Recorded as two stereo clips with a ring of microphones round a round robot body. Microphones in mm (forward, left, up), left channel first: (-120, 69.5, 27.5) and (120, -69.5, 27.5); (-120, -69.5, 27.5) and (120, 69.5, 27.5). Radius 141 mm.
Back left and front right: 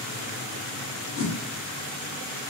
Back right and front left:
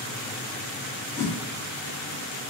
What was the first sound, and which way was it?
A whoosh, 150° left.